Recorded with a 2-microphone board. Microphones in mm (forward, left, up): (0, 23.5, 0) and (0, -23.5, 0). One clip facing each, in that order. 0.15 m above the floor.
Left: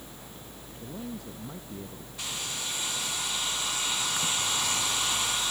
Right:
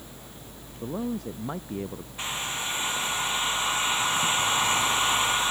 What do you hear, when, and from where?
0.8 s a man speaking: 55° right (ahead or behind)
2.2 s a hair dryer: 30° right (ahead or behind)